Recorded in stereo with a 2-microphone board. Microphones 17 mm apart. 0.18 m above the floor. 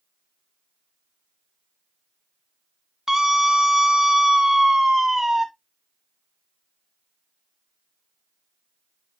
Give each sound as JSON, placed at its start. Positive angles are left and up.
{"t": 3.1, "sound": "a scream", "side_deg": -30, "distance_m": 2.0}